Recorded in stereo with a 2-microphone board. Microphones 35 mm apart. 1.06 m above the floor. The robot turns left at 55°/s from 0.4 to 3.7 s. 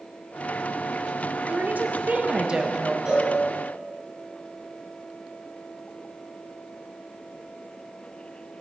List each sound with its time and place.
1.5 s a woman speaking: 90° right, 1.2 m; by 3.0 s 170° right, 1.2 m
3.0 s a cowbell: 35° right (ahead or behind), 4 m; by 3.3 s 20° right (ahead or behind), 4 m